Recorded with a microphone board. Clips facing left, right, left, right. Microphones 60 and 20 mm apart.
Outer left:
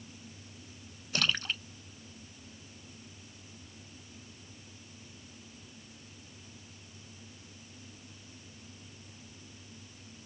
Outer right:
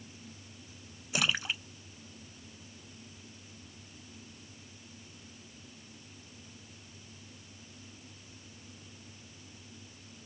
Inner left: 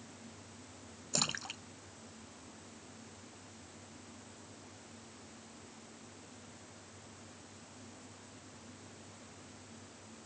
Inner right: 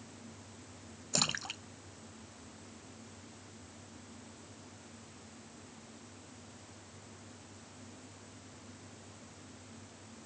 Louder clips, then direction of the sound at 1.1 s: Outer right 1 dB, inner right 2 dB; 10° right (ahead or behind).